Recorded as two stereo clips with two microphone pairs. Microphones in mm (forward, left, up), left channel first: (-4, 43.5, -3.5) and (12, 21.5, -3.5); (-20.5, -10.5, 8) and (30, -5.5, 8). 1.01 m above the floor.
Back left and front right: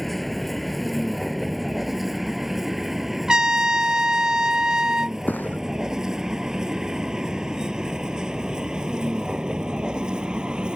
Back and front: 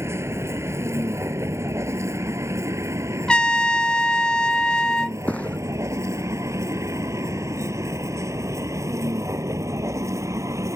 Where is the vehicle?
35° left; by 10.8 s 5° left.